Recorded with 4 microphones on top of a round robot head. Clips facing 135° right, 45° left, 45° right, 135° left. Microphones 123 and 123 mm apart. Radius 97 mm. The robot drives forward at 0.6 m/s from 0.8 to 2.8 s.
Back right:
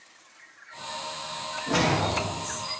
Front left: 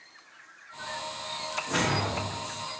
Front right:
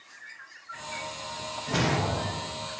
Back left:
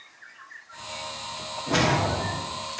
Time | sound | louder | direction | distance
1.7 | a whoosh | back right 5 dB, back left 4 dB | 175° left | 1.7 m